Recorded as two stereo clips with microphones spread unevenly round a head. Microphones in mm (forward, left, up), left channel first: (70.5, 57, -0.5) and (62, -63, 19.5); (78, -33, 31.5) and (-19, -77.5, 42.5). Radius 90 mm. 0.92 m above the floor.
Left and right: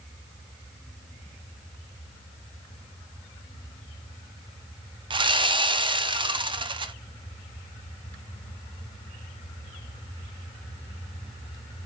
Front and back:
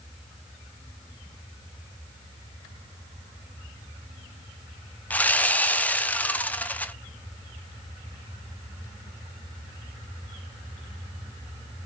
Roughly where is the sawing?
Ahead right.